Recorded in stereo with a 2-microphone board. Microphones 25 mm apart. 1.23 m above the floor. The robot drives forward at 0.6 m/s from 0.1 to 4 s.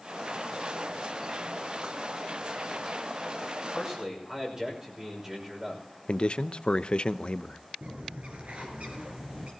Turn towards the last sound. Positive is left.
turn(degrees=-50)  # may be behind; listen again after turning